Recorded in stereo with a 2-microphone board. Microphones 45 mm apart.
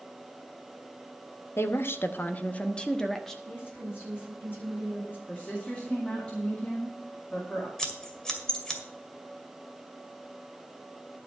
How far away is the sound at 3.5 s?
About 7.5 m.